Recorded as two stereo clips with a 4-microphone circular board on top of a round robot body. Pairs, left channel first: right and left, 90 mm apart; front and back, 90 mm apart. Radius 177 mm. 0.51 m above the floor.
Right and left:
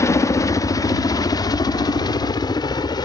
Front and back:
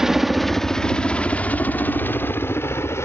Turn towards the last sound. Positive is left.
turn(degrees=-60)